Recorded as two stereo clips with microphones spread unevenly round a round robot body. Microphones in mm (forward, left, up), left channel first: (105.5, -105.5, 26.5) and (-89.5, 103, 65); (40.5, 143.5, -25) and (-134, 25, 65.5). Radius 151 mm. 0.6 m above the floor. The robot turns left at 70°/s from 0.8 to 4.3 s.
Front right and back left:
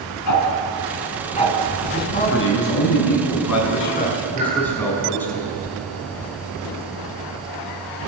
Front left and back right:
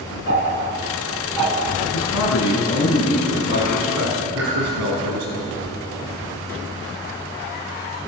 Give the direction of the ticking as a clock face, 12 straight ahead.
3 o'clock.